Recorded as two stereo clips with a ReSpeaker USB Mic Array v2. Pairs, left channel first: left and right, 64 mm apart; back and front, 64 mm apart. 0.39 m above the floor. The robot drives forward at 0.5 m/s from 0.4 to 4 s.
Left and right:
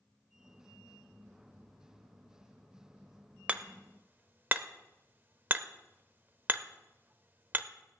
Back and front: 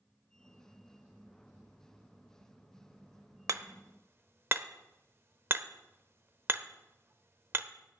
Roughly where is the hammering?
Ahead right.